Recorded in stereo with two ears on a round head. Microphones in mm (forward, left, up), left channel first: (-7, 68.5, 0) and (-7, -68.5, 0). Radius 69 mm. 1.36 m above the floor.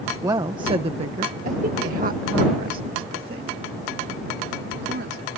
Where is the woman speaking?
20° right (ahead or behind); by 5.3 s 75° right (ahead or behind).